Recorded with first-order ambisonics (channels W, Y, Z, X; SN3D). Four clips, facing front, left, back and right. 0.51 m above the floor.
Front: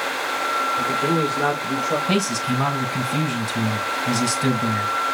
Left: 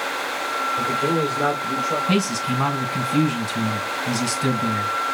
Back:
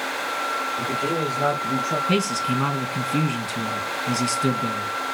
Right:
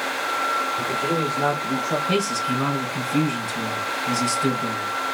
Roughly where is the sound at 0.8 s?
Ahead left.